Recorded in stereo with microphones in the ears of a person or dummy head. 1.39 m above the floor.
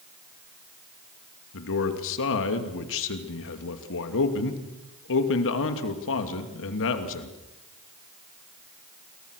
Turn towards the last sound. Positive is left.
turn(degrees=65)  # may be behind; listen again after turning